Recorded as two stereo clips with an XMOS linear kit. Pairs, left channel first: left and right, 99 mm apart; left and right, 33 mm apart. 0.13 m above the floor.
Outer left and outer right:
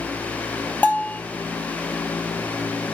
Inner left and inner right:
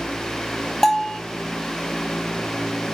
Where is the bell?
15° left (ahead or behind), 0.6 m.